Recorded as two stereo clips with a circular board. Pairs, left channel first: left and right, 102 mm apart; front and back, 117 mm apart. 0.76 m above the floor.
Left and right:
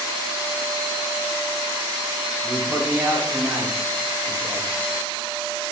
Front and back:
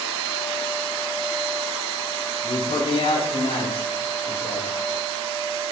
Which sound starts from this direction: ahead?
A man speaking, at 2.4 s.